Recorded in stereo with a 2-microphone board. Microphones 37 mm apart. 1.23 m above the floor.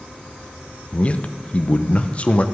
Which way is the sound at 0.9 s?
30° left (ahead or behind).